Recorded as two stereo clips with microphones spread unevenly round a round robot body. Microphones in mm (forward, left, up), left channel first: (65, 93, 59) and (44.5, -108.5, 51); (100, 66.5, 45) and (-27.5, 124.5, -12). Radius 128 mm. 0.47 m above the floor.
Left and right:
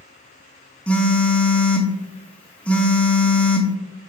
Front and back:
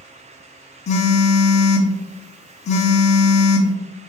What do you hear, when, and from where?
0.9 s a phone buzzing: straight ahead, 0.6 m